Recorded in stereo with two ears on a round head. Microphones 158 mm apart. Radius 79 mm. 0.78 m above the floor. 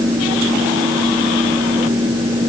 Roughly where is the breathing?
No breathing in this recording.